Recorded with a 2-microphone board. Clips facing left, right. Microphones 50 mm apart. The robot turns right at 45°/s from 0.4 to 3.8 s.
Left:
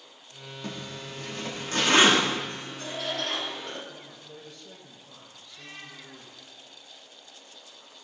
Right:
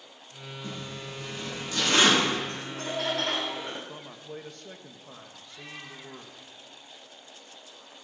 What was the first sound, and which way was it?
A zipper, 80° left.